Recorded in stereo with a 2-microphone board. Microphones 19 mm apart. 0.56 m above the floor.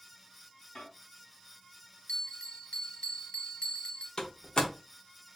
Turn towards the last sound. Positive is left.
turn(degrees=50)  # may be behind; listen again after turning